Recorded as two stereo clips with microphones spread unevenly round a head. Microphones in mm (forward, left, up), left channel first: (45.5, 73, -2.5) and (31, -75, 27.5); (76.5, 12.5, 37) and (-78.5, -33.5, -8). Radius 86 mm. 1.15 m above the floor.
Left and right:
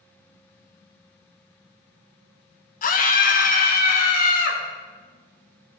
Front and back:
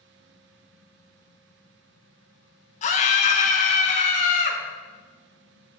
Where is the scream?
70° left, 1.1 m.